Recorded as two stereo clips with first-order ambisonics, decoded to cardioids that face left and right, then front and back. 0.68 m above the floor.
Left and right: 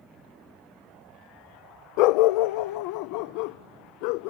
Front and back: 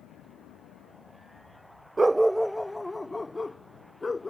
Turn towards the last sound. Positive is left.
turn(degrees=80)